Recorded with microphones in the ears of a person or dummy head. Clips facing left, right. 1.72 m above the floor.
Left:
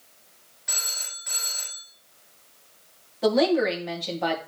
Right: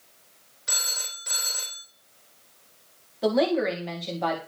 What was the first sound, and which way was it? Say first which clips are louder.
A phone ringing: right 2 dB; 55° right (ahead or behind).